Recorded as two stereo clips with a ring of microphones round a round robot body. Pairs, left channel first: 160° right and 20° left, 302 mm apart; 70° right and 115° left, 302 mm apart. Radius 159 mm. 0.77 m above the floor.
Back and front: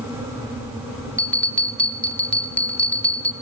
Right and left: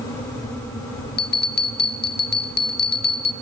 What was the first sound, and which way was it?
A bell, 75° right.